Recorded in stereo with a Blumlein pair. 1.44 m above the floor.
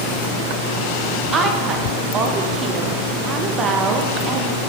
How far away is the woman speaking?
About 1.6 m.